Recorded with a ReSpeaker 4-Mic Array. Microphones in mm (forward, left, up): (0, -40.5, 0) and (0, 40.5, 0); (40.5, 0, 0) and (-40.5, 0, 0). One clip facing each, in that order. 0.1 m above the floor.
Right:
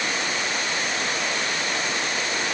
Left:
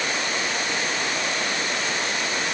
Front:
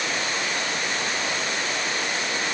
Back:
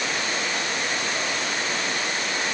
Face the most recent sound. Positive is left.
No sound to turn to.